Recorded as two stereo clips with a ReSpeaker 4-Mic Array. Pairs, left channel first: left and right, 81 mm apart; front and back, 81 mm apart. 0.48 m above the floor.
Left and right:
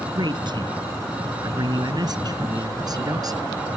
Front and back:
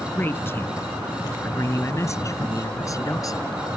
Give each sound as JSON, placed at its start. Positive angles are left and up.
{"t": 0.1, "sound": "a man speaking", "azimuth_deg": -65}